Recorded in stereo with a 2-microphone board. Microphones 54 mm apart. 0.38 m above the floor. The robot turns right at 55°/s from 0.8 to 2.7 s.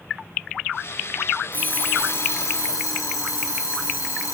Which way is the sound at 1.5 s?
30° left.